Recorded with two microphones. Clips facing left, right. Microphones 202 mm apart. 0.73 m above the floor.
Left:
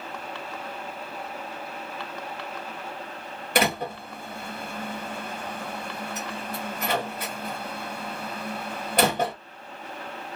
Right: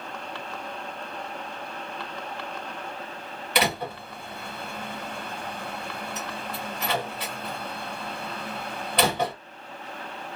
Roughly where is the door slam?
Left.